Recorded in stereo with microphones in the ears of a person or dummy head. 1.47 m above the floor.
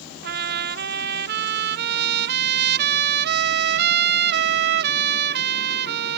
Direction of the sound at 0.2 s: 60° right (ahead or behind).